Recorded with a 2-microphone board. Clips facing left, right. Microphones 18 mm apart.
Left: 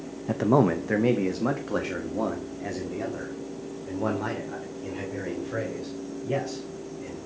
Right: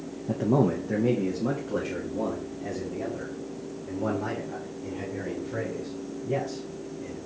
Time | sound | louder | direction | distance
0.3 | a man speaking | left 2 dB | 50° left (ahead or behind) | 0.6 m